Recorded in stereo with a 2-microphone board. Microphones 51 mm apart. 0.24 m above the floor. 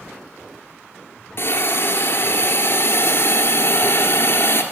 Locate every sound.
1.4 s a hiss: 55° left (ahead or behind), 1.9 m